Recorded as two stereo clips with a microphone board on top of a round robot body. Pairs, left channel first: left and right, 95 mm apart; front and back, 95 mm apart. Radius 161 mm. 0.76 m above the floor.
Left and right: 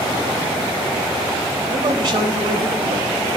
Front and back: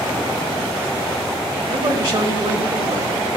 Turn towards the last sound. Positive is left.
turn(degrees=-135)